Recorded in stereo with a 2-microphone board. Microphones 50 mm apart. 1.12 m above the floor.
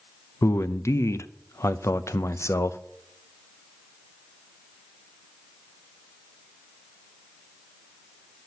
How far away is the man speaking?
About 0.6 m.